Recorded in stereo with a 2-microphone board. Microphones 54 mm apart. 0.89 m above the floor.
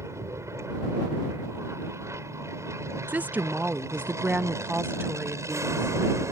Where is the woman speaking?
30° right (ahead or behind).